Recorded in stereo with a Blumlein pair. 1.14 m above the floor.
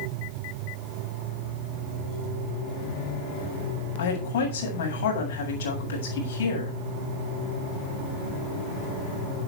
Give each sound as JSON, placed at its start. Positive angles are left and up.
{"t": 4.0, "sound": "a woman speaking", "azimuth_deg": 60, "distance_m": 7.5}